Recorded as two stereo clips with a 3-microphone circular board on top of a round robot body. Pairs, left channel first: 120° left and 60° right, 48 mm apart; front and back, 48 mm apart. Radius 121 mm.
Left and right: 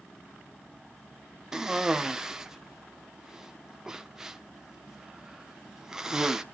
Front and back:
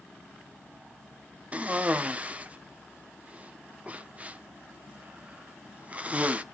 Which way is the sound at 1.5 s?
135° right.